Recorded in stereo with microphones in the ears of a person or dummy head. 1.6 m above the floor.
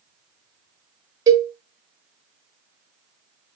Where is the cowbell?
20° right (ahead or behind), 0.6 m.